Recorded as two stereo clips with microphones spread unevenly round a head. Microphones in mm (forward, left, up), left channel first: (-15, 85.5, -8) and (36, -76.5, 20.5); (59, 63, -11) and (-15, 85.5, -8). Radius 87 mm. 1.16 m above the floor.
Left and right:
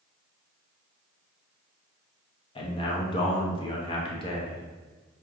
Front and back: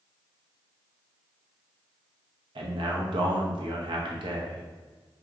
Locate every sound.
2.5 s a man speaking: 165° left, 0.7 m